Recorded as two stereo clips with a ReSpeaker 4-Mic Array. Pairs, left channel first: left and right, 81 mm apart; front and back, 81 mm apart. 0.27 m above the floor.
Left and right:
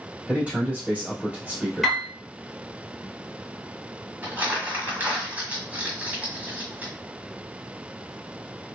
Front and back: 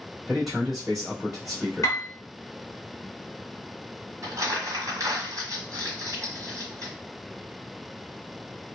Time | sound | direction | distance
0.3 | a man speaking | 95° right | 1.3 m
1.8 | a piano | straight ahead | 1.2 m
4.2 | crumpling | 155° right | 1.1 m